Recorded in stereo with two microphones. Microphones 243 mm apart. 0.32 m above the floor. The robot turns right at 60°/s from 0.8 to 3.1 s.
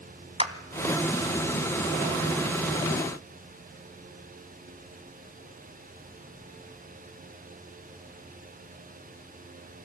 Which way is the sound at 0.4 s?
25° right (ahead or behind).